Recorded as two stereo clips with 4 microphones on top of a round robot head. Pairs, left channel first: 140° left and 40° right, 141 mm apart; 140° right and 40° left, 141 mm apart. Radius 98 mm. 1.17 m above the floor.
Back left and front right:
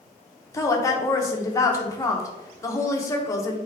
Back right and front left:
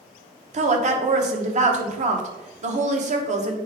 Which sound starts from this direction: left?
A woman speaking, at 0.5 s.